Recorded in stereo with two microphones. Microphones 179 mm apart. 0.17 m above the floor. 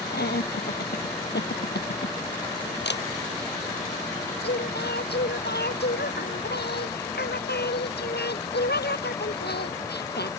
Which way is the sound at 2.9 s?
75° left (ahead or behind).